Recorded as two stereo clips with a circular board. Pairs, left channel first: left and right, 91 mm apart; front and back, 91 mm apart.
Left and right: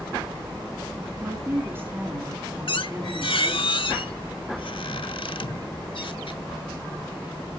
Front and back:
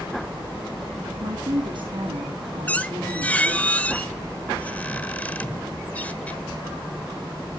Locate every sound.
1.2 s a woman speaking: 155° right, 6 m
2.7 s a squeak: 75° left, 1.1 m